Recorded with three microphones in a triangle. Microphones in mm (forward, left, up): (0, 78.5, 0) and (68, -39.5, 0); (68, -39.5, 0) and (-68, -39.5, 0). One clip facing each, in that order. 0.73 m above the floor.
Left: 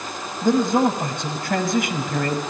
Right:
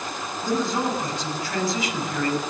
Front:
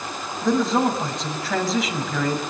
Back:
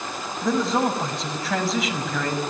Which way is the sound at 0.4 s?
90° left.